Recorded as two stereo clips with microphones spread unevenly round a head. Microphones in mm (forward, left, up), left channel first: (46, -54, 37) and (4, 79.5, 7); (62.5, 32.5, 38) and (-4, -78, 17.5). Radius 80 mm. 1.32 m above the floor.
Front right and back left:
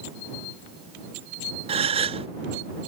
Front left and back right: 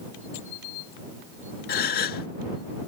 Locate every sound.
1.7 s a gasp: 60° left